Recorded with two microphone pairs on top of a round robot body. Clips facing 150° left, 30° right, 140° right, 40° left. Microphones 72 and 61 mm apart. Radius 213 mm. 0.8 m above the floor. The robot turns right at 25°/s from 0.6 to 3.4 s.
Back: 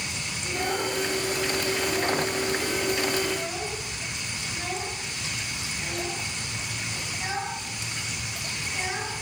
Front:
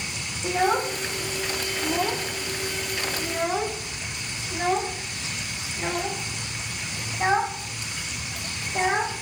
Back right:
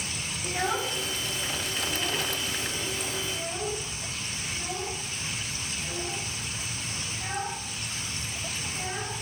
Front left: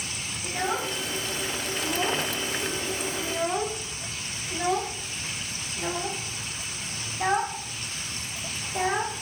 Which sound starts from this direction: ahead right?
A child speaking, at 0.4 s.